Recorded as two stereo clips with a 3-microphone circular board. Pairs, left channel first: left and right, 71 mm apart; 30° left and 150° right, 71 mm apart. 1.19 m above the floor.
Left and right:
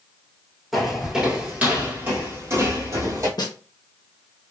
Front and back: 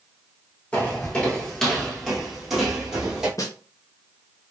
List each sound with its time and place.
0.7 s footsteps: 5° right, 1.2 m; by 3.3 s 70° right, 1.8 m
3.4 s a snare drum: 70° left, 0.9 m